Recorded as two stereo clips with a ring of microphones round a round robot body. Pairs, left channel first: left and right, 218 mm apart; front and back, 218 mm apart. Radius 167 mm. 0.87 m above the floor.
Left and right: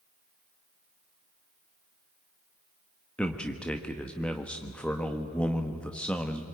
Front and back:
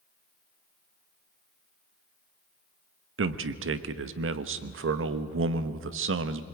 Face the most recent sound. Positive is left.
turn(degrees=175)